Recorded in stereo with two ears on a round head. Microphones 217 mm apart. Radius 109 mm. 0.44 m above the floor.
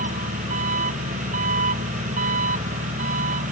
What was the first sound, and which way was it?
An engine running, 35° right (ahead or behind).